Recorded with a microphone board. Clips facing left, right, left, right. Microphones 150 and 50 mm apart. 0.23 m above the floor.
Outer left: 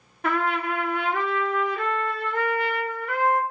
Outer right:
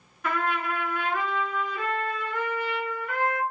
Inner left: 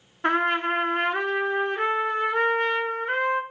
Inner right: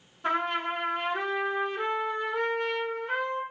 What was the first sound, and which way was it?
A trumpet, 60° left (ahead or behind).